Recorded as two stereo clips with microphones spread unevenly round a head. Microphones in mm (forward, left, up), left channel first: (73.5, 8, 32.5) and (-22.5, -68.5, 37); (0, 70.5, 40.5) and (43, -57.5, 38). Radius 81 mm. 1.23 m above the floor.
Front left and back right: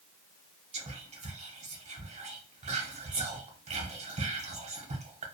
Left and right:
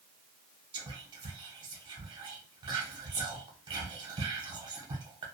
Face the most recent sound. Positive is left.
turn(degrees=-125)